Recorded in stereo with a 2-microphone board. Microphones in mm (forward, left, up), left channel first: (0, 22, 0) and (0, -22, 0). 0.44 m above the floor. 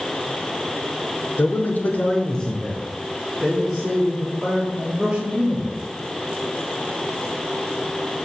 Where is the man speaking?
45° left (ahead or behind), 1.1 m; by 5.7 s 5° right (ahead or behind), 5.5 m.